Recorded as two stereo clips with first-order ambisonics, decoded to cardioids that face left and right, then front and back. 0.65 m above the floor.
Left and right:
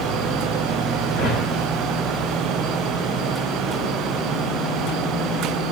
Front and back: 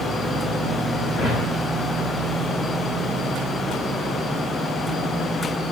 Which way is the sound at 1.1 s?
60° left.